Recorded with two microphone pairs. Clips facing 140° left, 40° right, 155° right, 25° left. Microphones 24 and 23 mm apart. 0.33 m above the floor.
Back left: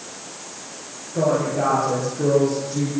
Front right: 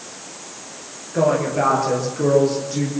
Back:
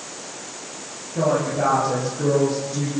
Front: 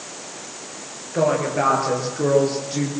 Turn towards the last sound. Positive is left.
turn(degrees=20)